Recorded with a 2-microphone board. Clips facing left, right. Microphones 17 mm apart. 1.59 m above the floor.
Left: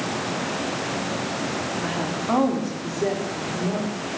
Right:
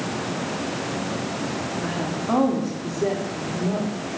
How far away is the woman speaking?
About 3 m.